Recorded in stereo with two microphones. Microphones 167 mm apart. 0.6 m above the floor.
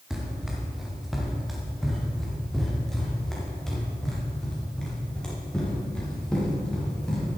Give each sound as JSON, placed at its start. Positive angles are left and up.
{"t": 0.1, "sound": "running footsteps", "side_deg": -5, "distance_m": 4.0}